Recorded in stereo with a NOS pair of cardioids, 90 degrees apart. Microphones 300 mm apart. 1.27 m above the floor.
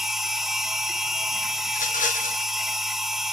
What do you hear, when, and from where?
0.0 s a machine running: straight ahead, 1.1 m
1.7 s a rattle: 25° left, 1.7 m